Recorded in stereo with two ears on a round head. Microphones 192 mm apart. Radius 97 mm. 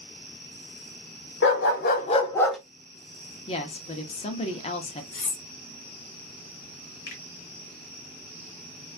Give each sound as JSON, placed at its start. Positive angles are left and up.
{"t": 1.4, "sound": "a dog barking", "side_deg": 60, "distance_m": 0.9}
{"t": 3.5, "sound": "a woman speaking", "side_deg": 30, "distance_m": 0.6}
{"t": 5.1, "sound": "cutlery clinking", "side_deg": 40, "distance_m": 1.2}
{"t": 7.1, "sound": "a finger snap", "side_deg": 50, "distance_m": 1.8}